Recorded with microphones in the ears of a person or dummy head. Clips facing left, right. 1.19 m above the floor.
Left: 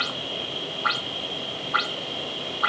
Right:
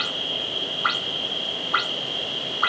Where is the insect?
Centre (ahead or behind), 0.8 m.